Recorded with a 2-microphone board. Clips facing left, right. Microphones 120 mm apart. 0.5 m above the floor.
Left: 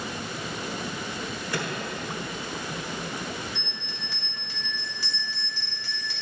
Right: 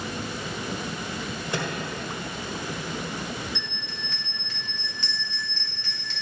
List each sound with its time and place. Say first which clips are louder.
1.5 s a microwave: right 1 dB; 20° right (ahead or behind), 1.5 m
3.5 s a bell: right 1 dB; 10° left (ahead or behind), 2 m